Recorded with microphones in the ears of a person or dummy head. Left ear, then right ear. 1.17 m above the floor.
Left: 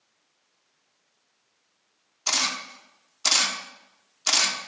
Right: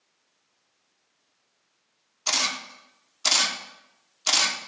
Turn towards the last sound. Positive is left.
turn(degrees=-5)  # may be behind; listen again after turning